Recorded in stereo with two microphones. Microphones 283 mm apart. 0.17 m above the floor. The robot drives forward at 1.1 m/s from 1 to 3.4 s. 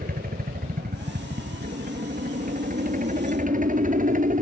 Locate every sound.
0.0 s a helicopter: 30° right (ahead or behind)